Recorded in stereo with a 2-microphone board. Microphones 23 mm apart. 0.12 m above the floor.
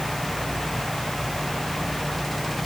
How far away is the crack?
No crack in this recording.